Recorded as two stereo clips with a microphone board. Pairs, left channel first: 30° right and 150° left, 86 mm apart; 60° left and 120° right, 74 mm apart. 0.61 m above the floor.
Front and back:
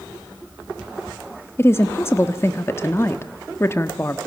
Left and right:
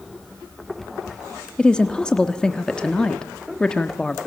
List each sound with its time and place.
1.6 s a woman speaking: 10° right, 1.1 m